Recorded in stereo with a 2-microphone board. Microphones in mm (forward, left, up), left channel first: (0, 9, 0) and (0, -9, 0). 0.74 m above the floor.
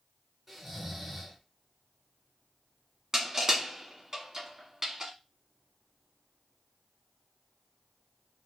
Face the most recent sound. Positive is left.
turn(degrees=-35)  # may be behind; listen again after turning